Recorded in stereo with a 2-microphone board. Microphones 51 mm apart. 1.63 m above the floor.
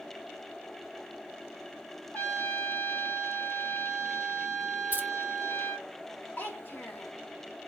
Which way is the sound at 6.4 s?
45° left (ahead or behind).